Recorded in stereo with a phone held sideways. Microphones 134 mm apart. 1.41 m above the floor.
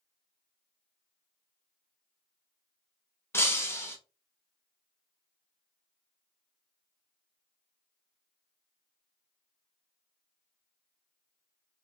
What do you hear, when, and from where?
3.3 s breaking glass: 20° left (ahead or behind), 0.9 m